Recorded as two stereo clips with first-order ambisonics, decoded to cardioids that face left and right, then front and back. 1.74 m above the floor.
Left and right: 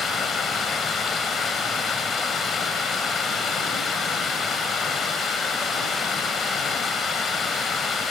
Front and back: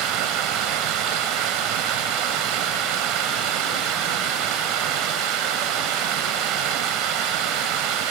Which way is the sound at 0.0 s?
160° left.